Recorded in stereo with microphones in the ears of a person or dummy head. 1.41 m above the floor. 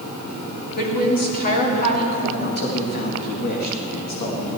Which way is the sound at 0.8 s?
50° left (ahead or behind).